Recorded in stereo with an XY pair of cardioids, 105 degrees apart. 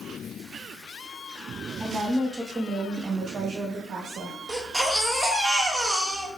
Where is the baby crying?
5° right, 1.4 m.